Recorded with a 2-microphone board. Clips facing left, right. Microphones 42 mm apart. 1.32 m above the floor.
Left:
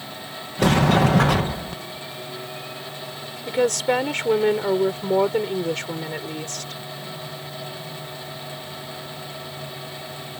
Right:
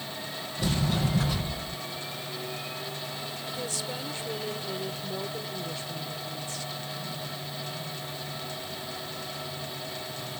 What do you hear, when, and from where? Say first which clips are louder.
0.6 s a sliding door: left 12 dB; 75° left (ahead or behind)
3.5 s a woman speaking: left 17 dB; 65° left (ahead or behind)